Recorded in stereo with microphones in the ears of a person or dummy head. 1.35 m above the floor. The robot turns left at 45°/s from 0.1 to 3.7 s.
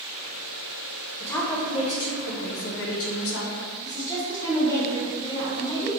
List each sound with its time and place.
1.2 s a woman speaking: 170° left, 0.5 m; by 3.5 s 65° left, 0.5 m
3.9 s a woman speaking: 15° left (ahead or behind), 1.1 m